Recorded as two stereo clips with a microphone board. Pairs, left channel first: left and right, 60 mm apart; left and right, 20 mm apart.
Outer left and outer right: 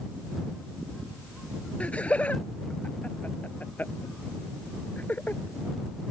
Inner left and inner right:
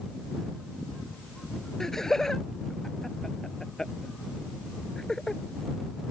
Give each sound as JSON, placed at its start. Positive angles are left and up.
{"t": 1.8, "sound": "laughter", "side_deg": 20}